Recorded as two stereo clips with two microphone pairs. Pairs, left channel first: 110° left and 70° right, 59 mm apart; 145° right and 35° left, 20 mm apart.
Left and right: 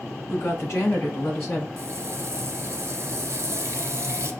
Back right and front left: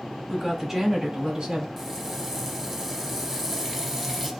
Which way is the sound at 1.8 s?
45° right.